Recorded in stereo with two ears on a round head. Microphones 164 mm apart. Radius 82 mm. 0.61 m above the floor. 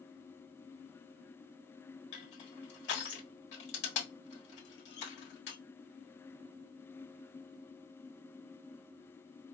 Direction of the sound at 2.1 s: 65° left (ahead or behind).